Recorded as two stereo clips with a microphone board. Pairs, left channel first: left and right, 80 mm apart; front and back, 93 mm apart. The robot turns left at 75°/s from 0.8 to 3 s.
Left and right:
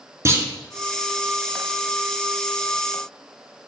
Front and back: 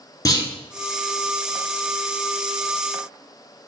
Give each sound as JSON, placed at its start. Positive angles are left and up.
{"t": 0.2, "sound": "a clunk", "azimuth_deg": -45, "distance_m": 0.7}